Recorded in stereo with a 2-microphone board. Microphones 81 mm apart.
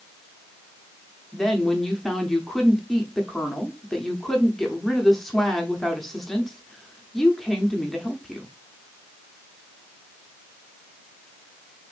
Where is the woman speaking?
5° left (ahead or behind), 0.9 m.